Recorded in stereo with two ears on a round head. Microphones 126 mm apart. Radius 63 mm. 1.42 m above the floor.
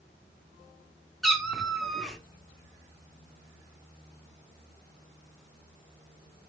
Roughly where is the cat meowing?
Centre.